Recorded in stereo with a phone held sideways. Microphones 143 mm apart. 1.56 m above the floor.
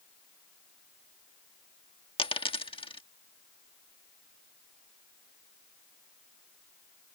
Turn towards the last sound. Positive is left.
turn(degrees=40)  # may be behind; listen again after turning